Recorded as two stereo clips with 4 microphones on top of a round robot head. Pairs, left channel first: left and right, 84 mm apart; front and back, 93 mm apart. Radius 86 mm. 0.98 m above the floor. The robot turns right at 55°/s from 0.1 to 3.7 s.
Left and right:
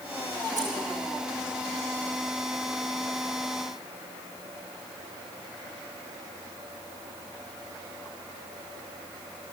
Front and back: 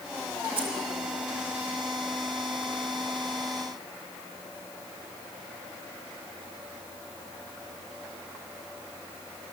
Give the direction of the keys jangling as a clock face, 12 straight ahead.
5 o'clock.